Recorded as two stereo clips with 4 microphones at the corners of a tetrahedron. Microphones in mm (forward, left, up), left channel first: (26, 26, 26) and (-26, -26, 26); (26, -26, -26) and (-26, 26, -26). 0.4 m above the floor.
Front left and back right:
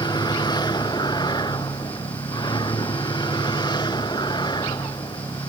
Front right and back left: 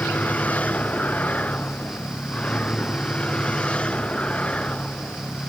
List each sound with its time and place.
0.0 s a vehicle: 25° left; by 5.5 s 30° left